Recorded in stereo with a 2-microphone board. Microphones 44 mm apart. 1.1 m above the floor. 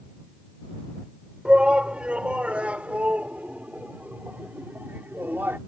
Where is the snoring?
I don't hear snoring.